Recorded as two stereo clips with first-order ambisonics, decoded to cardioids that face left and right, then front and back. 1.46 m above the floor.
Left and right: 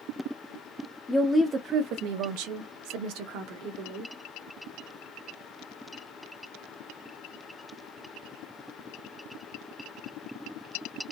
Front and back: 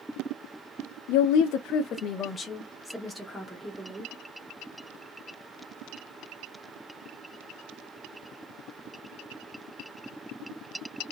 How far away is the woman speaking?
About 0.6 m.